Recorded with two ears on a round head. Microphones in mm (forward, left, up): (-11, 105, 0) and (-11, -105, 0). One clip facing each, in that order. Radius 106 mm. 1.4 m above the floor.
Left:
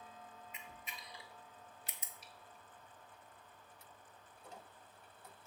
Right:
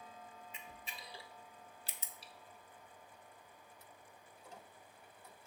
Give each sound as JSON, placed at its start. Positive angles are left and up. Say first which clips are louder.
{"t": 0.5, "sound": "a camera shutter", "louder": "right 1 dB", "side_deg": -25, "distance_m": 0.7}